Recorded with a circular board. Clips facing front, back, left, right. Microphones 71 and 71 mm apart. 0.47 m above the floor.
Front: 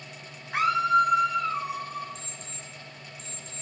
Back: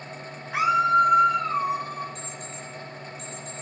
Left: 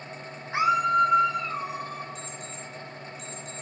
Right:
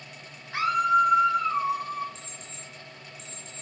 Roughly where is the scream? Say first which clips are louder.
Back 2 dB, even; left.